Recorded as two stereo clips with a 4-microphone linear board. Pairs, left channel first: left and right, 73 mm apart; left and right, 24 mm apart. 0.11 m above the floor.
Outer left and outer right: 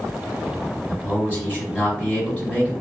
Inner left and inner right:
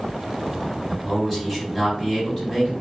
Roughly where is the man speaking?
Left.